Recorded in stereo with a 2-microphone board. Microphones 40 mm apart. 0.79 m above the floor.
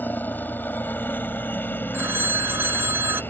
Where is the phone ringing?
70° right (ahead or behind).